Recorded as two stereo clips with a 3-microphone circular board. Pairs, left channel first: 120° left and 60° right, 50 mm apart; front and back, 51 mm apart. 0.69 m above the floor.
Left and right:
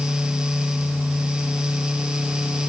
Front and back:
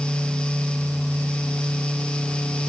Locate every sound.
Only background noise.